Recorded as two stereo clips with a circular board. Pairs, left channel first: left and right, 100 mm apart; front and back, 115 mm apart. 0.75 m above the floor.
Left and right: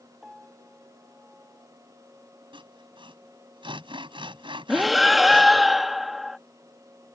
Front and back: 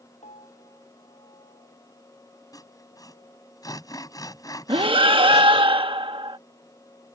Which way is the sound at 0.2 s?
5° right.